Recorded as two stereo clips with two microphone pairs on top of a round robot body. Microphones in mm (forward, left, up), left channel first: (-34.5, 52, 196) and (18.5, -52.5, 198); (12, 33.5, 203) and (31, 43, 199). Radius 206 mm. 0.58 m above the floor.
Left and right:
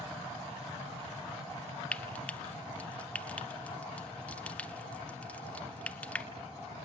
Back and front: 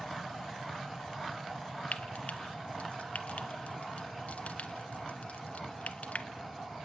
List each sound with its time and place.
1.9 s frying: 165° right, 0.6 m